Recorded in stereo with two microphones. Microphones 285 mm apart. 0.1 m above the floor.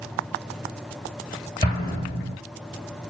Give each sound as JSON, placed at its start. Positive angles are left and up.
{"t": 1.6, "sound": "an explosion", "side_deg": 20, "distance_m": 1.5}